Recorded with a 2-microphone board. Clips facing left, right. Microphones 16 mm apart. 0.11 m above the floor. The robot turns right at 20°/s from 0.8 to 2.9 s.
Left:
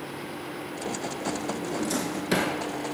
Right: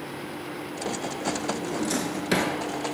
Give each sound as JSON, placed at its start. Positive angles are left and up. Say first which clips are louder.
{"t": 1.6, "sound": "a drawer", "louder": "right 1 dB", "side_deg": -20, "distance_m": 1.1}